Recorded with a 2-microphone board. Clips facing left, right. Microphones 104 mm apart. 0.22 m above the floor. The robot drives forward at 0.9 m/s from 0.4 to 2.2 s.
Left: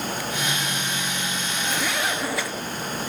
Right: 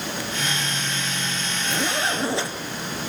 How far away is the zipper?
About 3.5 m.